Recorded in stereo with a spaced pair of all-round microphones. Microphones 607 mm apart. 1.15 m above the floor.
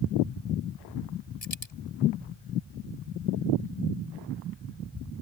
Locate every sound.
1.4 s a dropped coin: 75° left (ahead or behind)